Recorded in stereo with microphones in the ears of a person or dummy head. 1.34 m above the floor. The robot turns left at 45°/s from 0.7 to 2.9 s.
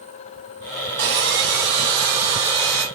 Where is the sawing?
110° right, 1.1 m; by 2.9 s 170° left, 1.1 m.